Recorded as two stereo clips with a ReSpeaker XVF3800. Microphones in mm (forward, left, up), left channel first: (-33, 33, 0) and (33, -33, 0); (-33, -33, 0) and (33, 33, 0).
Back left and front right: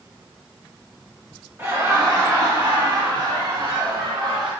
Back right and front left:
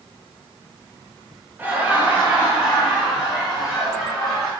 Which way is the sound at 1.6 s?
10° right.